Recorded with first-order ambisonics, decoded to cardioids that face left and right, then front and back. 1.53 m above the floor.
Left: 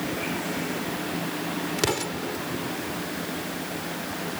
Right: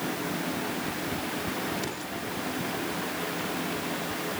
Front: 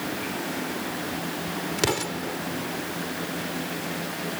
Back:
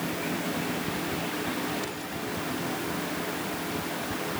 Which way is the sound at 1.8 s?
40° left.